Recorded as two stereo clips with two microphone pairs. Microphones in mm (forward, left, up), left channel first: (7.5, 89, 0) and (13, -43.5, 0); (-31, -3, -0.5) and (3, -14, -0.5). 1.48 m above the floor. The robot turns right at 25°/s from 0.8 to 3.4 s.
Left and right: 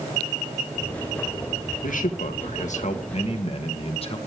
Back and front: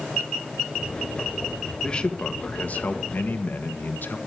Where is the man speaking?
95° left, 1.8 m; by 4.2 s 135° left, 1.8 m.